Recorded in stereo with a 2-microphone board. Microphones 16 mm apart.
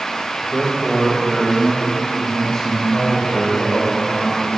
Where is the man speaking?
5° right (ahead or behind), 1.0 m; by 4.6 s 45° left (ahead or behind), 4.5 m.